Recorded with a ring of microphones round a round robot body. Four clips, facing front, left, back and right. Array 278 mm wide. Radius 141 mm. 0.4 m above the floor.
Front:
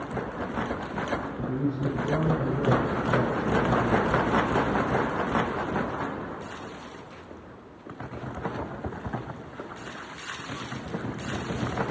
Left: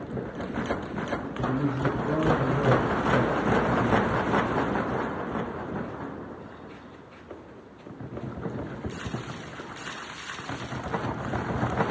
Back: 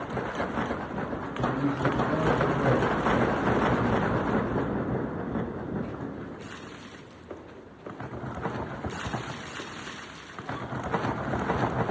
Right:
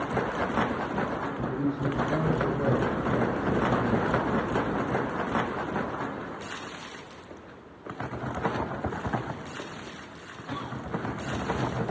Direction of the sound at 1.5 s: 80° left.